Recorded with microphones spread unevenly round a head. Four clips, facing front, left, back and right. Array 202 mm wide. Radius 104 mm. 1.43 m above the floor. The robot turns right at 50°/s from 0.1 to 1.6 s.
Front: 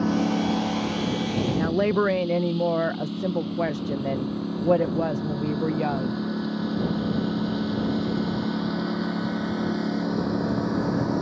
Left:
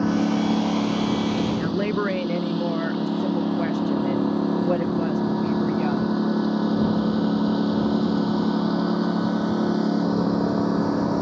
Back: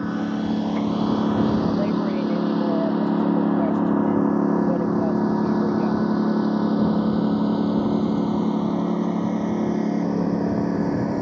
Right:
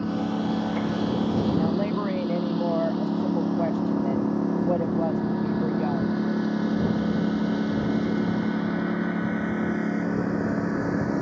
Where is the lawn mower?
100° left; by 11.2 s 125° left.